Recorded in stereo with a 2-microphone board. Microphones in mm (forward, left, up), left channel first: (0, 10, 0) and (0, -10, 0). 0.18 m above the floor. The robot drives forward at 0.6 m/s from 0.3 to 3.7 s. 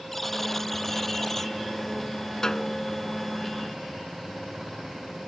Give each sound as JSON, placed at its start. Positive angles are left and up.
{"t": 0.1, "sound": "a buzzer", "side_deg": 20}
{"t": 2.4, "sound": "a snare drum", "side_deg": 25}